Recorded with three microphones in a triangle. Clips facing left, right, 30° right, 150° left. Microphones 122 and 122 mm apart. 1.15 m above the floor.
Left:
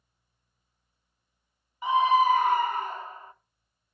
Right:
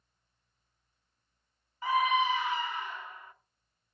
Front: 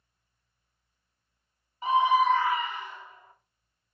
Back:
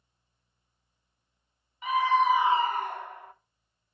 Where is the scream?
20° left, 0.7 m; by 3.3 s 145° left, 1.0 m.